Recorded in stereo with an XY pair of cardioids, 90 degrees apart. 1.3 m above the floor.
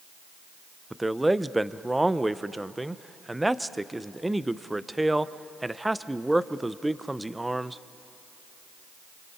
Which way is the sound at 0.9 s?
10° right.